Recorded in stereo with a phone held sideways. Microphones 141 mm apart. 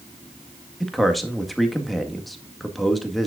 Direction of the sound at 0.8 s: Centre (ahead or behind).